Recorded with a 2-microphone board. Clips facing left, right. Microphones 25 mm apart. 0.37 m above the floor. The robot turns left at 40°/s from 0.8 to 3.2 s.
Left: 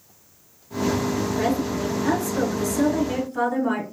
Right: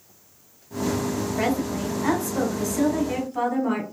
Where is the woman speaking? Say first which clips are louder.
Right 1 dB; 100° right, 2.5 m; by 3.8 s 170° right, 2.5 m.